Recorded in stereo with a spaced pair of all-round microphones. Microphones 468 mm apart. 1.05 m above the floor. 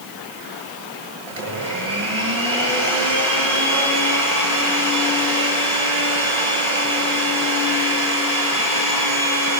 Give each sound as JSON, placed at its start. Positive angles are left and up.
{"t": 1.3, "sound": "a blender", "side_deg": -65, "distance_m": 8.5}